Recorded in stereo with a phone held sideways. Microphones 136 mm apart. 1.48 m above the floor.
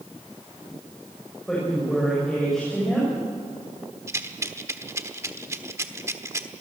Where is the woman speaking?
5° left (ahead or behind), 7 m.